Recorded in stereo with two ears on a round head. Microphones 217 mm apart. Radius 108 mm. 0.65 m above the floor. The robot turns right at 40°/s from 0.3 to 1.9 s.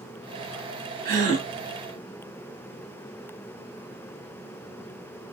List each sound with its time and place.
1.1 s a gasp: 40° right (ahead or behind), 1.8 m; by 1.5 s 25° right (ahead or behind), 1.8 m